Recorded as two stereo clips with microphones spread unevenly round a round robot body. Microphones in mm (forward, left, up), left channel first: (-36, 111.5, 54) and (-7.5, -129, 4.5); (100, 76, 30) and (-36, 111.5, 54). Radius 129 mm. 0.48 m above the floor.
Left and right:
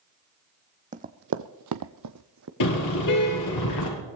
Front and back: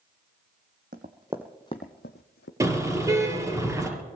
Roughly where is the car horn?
Left.